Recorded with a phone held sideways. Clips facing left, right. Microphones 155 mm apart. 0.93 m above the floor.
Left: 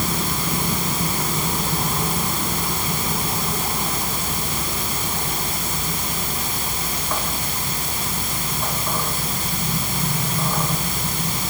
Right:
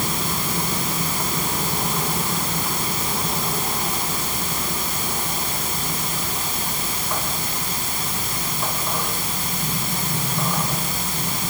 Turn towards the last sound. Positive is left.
No sound to turn to.